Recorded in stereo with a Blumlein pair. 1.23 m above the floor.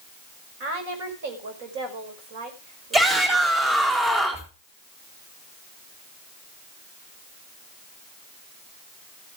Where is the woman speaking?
50° right, 5.5 m.